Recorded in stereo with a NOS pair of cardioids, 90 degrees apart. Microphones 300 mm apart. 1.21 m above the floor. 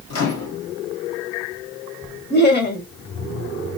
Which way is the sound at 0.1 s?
55° left.